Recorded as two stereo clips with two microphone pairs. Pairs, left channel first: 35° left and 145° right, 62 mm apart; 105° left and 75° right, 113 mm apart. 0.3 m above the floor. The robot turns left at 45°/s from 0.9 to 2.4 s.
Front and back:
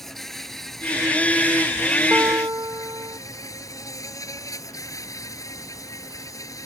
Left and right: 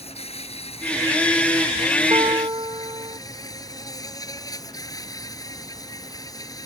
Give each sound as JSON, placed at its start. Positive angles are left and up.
{"t": 0.0, "sound": "an insect", "azimuth_deg": 120}
{"t": 2.1, "sound": "a guitar", "azimuth_deg": -105}